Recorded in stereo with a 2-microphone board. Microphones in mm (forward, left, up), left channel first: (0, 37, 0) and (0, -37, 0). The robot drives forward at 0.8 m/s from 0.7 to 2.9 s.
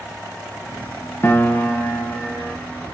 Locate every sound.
1.2 s a piano: 30° left (ahead or behind), 0.7 m; by 2.5 s 10° left (ahead or behind), 1.5 m